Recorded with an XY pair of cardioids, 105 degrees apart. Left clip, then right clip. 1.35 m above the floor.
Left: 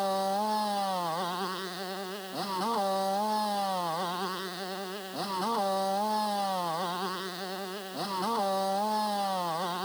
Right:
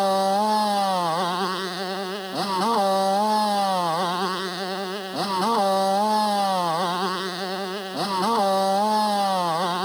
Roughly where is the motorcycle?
Ahead right.